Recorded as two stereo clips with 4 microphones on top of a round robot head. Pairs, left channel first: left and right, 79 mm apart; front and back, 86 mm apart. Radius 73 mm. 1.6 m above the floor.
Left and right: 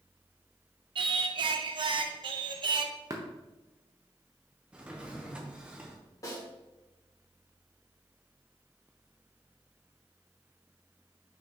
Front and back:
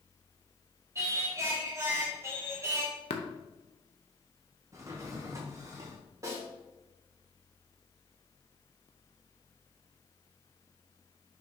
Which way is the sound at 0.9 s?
115° right.